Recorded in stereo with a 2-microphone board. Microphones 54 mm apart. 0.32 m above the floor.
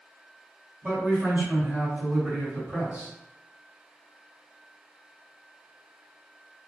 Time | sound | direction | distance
0.8 | a man speaking | 30° right (ahead or behind) | 1.7 m